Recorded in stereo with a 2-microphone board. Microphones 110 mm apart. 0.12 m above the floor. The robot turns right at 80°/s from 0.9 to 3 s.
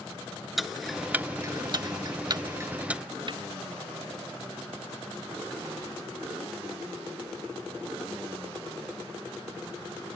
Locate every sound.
0.6 s ticking: centre (ahead or behind); by 3.0 s 5° right (ahead or behind)
3.3 s a snare drum: 50° right (ahead or behind)